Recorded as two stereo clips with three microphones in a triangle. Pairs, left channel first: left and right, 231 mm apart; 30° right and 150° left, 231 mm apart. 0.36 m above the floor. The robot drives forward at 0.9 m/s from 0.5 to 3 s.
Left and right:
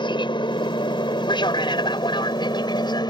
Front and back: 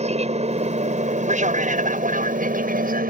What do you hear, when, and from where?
0.0 s an aircraft: 135° left; by 3.1 s 150° left